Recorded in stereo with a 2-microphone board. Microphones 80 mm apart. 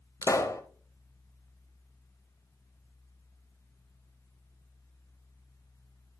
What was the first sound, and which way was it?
A pop, 40° left (ahead or behind).